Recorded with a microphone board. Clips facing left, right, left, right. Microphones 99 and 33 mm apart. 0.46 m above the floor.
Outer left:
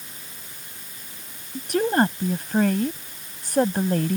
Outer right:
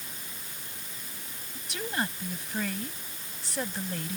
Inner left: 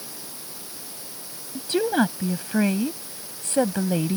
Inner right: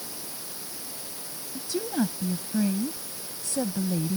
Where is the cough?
I don't hear a cough.